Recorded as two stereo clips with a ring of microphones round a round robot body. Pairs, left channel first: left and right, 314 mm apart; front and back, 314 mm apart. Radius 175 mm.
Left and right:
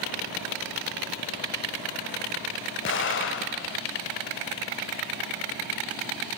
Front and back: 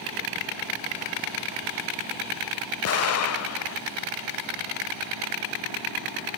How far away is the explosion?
About 0.8 m.